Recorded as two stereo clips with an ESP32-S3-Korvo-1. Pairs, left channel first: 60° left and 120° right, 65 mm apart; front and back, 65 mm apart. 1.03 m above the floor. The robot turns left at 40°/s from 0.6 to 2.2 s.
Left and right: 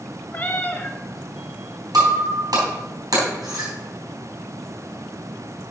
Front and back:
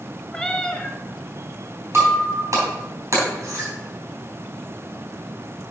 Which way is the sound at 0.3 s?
65° left.